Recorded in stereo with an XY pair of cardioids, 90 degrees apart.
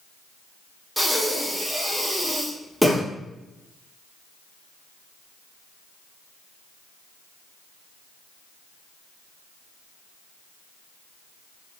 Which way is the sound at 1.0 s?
10° right.